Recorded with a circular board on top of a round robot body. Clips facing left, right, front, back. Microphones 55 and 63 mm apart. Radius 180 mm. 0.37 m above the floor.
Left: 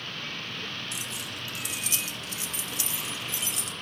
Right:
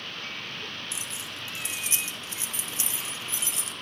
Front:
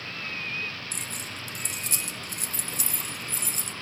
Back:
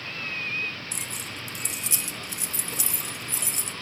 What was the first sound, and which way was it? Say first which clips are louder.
Keys jangling: left 1 dB, back 1 dB; 30° right.